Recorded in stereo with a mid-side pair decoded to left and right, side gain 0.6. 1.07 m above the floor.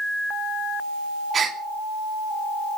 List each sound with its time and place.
1.3 s a gasp: 35° right, 2.5 m